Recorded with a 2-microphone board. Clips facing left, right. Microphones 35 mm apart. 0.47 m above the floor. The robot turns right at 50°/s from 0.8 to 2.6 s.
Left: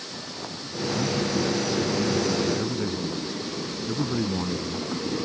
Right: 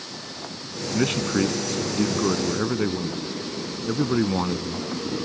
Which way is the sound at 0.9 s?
120° right.